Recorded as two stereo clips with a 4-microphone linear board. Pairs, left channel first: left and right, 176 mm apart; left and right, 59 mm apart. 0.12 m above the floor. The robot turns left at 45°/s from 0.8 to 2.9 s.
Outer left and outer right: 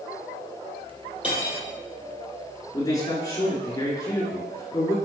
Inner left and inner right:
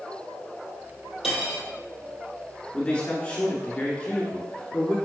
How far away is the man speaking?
About 1.7 m.